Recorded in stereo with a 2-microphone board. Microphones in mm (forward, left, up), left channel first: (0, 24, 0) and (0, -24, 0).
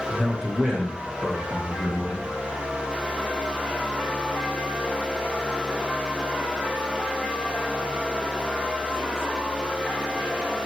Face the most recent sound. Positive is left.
turn(degrees=-50)  # may be behind; listen again after turning